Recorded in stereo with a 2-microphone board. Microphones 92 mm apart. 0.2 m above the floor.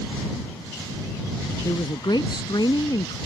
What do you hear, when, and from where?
1.6 s a woman speaking: 55° left (ahead or behind)